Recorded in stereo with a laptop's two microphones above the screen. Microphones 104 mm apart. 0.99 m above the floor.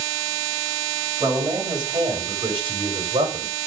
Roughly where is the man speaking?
Right.